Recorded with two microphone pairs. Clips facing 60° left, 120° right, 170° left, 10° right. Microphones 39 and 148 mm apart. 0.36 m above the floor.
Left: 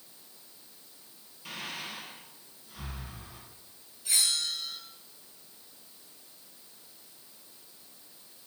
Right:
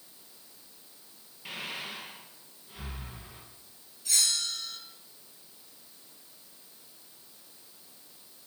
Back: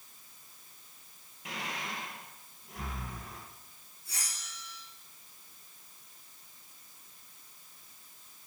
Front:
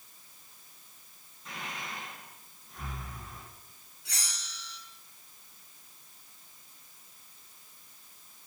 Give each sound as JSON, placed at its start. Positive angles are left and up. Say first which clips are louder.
{"t": 1.4, "sound": "breathing", "louder": "right 1 dB, back 2 dB", "azimuth_deg": 170, "distance_m": 2.5}
{"t": 4.0, "sound": "a bell", "louder": "even, front 2 dB", "azimuth_deg": -20, "distance_m": 3.5}